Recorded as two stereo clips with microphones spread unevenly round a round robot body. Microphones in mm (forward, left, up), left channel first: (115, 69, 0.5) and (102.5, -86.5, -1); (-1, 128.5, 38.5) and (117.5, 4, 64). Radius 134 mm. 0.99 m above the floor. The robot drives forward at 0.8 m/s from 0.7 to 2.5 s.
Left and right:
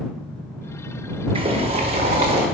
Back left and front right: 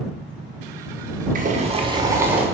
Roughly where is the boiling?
Ahead right.